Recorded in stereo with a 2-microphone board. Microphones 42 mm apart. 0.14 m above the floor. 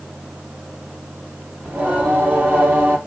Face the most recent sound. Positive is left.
turn(degrees=-35)  # may be behind; listen again after turning